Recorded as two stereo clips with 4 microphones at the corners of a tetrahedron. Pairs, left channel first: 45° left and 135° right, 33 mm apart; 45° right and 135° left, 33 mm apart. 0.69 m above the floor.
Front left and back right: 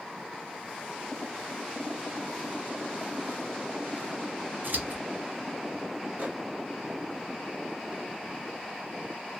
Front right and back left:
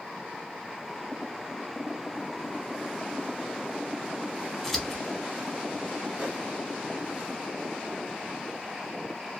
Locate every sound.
4.6 s scissors: 135° right, 1.0 m
6.2 s a microwave: 170° right, 1.4 m